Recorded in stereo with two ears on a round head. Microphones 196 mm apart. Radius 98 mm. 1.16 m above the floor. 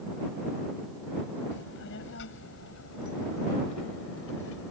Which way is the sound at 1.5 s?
55° left (ahead or behind).